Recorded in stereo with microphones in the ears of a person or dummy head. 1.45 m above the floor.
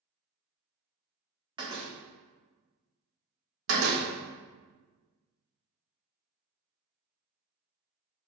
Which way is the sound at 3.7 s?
75° right (ahead or behind).